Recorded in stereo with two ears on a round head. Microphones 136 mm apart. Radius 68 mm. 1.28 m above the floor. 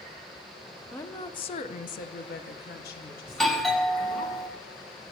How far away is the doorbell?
About 1.1 m.